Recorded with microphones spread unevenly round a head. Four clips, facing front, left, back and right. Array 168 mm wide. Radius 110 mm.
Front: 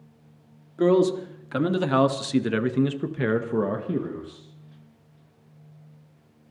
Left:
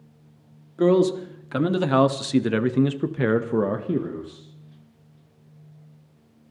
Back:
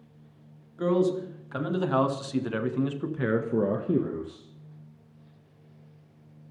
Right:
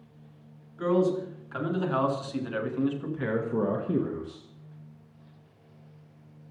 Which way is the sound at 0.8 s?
40° left.